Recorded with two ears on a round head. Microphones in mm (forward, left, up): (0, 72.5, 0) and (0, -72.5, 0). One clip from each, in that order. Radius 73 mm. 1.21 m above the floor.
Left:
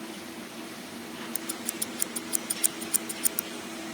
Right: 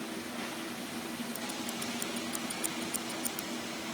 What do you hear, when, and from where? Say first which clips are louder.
1.4 s scissors: left 2 dB; 50° left (ahead or behind)